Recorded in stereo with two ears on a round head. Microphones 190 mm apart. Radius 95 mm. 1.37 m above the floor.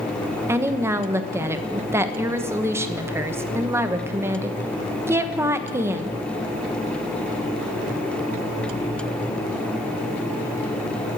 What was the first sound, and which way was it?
A woman speaking, 10° right (ahead or behind).